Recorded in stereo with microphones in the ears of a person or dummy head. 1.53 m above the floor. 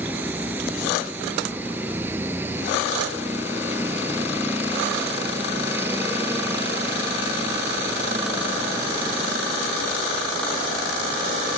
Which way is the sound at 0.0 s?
10° right (ahead or behind).